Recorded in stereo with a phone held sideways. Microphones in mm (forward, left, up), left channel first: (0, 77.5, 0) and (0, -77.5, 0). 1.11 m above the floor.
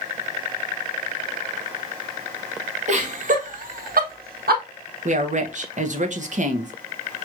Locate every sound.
2.9 s laughter: 50° right (ahead or behind), 1.5 m; by 4.6 s 75° right (ahead or behind), 0.9 m
5.0 s a woman speaking: 50° right (ahead or behind), 0.9 m